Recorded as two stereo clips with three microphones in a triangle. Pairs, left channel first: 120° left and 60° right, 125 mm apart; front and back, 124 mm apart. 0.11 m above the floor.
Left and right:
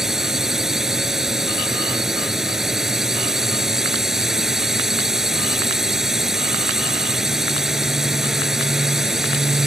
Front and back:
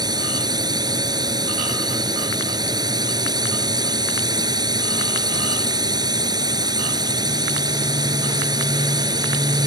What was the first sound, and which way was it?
A drone, 145° right.